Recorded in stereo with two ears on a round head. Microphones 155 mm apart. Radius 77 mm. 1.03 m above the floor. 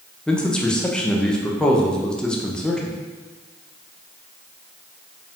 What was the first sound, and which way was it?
A man speaking, 5° left (ahead or behind).